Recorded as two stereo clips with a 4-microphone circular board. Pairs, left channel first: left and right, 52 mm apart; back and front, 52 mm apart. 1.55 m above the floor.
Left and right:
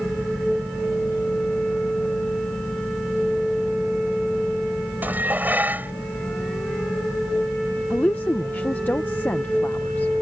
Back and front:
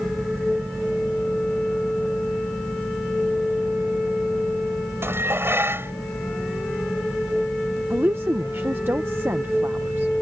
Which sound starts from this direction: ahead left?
A woman speaking, at 7.9 s.